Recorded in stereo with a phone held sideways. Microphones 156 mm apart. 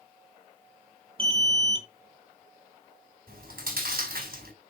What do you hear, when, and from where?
1.2 s an alarm: 35° right (ahead or behind), 2.5 m
3.3 s chewing: 70° right (ahead or behind), 4.5 m